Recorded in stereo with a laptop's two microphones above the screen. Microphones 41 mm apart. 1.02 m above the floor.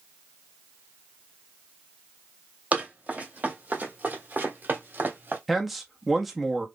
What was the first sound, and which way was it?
Running footsteps, 35° right (ahead or behind).